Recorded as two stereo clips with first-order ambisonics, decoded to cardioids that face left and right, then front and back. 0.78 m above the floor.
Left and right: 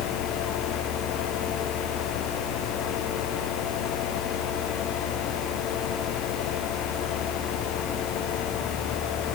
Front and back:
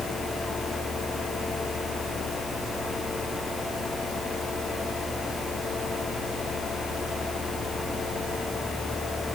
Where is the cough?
I don't hear a cough.